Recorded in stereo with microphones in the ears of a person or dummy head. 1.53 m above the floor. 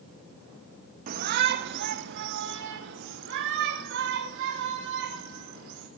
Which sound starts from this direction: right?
A shout, at 1.1 s.